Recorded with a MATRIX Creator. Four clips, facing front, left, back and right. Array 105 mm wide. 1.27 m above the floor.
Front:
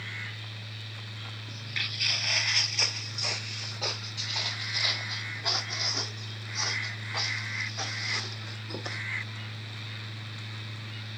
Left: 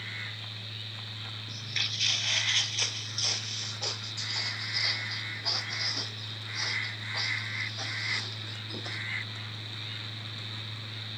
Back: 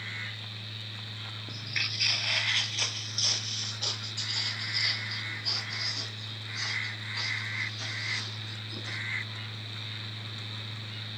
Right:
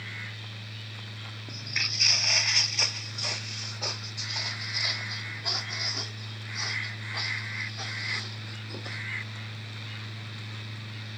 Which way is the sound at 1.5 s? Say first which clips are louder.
Right 4 dB, back 1 dB; 120° right.